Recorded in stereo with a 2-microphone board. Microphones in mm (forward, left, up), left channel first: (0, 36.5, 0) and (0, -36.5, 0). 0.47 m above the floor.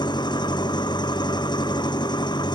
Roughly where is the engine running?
Left.